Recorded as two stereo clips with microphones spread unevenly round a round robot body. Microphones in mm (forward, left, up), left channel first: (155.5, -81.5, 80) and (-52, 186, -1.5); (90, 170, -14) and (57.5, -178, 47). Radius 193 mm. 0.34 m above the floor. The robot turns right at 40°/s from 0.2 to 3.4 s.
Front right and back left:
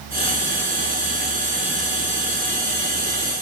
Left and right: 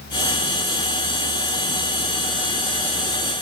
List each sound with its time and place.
Only background noise.